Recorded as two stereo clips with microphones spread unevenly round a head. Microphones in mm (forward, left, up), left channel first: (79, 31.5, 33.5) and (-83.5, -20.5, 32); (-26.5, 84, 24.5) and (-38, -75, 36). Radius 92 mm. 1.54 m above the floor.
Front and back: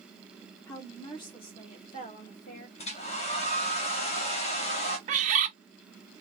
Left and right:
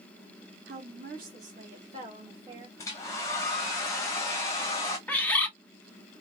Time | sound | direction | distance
0.7 | a woman speaking | 55° right | 2 m
2.8 | a hair dryer | 20° left | 1.1 m
5.1 | a bird | 170° left | 1.0 m